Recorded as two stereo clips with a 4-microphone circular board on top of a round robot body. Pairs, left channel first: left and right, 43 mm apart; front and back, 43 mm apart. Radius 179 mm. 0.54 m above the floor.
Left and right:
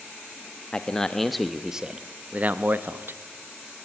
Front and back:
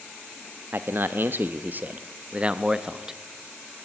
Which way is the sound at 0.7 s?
155° left.